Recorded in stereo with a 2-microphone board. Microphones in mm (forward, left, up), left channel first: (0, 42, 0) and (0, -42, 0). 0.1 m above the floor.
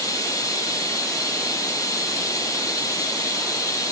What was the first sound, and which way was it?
Running water, 40° left (ahead or behind).